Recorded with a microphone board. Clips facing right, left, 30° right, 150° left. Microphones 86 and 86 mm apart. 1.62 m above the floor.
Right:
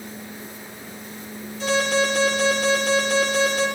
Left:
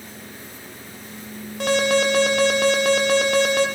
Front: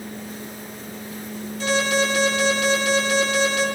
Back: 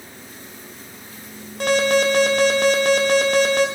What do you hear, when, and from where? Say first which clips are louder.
1.6 s an alarm: left 2 dB, back 4 dB; 120° left, 5 m